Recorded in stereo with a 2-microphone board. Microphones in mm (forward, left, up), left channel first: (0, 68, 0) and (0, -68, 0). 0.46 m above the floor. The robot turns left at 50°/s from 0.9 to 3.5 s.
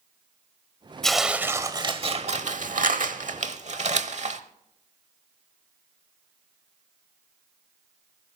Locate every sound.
1.0 s tearing paper: 5° left, 1.0 m; by 4.4 s 120° right, 1.0 m